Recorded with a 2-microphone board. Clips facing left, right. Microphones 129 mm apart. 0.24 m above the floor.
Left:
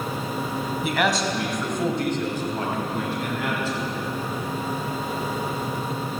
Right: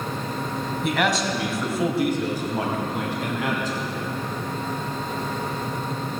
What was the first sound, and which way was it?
A man speaking, centre (ahead or behind).